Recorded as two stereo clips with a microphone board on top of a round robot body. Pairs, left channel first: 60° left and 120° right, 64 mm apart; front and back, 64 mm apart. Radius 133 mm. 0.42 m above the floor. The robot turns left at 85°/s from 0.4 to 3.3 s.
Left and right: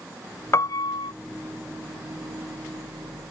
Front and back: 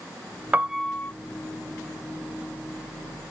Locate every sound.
0.5 s a piano: 110° left; by 1.1 s 60° left